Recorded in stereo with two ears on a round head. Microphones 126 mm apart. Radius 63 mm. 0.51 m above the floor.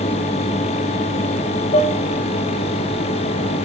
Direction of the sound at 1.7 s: 40° left (ahead or behind).